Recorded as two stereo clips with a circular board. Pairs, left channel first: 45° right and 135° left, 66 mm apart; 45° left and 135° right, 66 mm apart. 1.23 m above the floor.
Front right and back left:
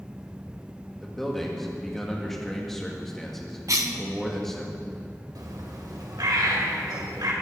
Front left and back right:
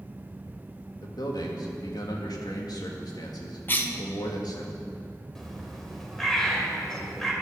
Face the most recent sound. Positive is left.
turn(degrees=130)